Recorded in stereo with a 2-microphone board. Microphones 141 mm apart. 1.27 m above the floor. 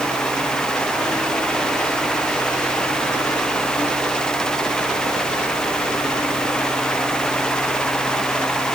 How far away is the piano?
I don't hear a piano.